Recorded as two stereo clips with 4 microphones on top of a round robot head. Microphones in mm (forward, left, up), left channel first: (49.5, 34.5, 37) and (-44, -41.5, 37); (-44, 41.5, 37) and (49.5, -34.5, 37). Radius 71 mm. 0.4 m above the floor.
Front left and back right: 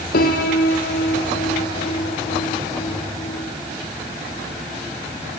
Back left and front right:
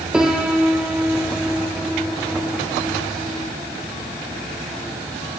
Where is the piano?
45° left, 3 m.